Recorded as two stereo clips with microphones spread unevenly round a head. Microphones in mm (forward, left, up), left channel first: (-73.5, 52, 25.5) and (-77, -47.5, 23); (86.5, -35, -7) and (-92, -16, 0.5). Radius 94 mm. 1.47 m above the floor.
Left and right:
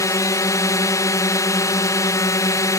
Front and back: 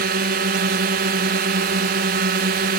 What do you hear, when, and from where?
0.0 s a drone: 140° left